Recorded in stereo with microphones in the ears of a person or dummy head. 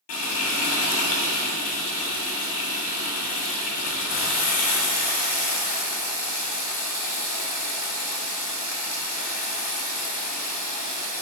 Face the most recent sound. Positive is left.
turn(degrees=50)  # may be behind; listen again after turning